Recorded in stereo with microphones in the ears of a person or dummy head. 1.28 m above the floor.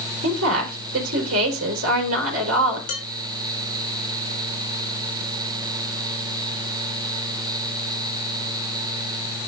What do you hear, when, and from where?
0.2 s a woman speaking: 80° right, 3.5 m
2.9 s dishes clattering: 55° left (ahead or behind), 4 m